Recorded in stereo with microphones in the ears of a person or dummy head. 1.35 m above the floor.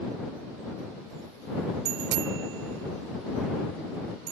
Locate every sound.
1.9 s a bicycle bell: 65° right (ahead or behind); by 4.3 s 70° right (ahead or behind)